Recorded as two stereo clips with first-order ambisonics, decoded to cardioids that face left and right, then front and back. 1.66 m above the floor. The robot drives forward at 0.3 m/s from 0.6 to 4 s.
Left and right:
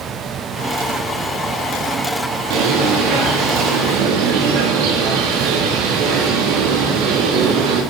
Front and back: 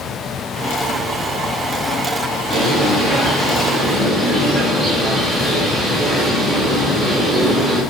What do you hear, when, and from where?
2.5 s a bird: 85° right, 3 m; by 7.8 s 95° right, 3 m